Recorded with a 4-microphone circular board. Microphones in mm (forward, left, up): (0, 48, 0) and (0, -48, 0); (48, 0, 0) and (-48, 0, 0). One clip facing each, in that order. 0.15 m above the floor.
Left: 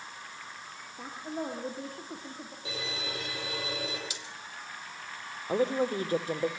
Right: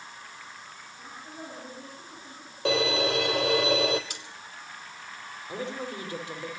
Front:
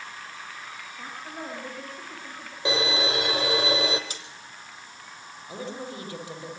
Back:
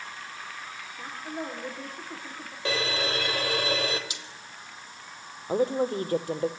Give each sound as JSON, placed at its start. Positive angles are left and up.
{"t": 1.0, "sound": "a woman speaking", "azimuth_deg": 95, "distance_m": 8.0}
{"t": 2.6, "sound": "a violin", "azimuth_deg": -75, "distance_m": 3.5}
{"t": 4.1, "sound": "cutlery clinking", "azimuth_deg": -50, "distance_m": 3.0}
{"t": 5.5, "sound": "a woman speaking", "azimuth_deg": 140, "distance_m": 3.5}